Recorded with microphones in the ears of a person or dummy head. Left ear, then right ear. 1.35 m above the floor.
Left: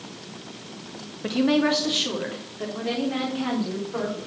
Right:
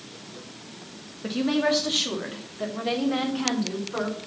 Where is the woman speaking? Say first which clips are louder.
Left 2 dB; 15° left (ahead or behind), 1.7 m; by 4.2 s 25° right (ahead or behind), 5 m.